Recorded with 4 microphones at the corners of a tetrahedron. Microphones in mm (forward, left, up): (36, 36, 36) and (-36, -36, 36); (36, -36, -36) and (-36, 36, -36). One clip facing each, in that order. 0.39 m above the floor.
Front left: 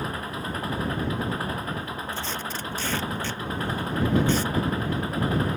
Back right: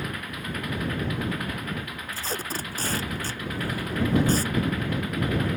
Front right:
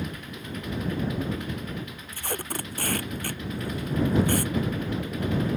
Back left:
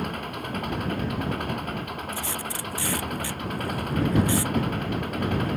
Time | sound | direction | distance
0.0 | an engine running | 105° left | ?
2.1 | tape being pulled | 80° right | ?